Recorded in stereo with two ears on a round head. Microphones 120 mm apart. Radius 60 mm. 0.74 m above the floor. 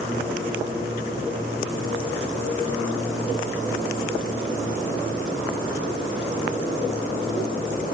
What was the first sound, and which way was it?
Only background noise.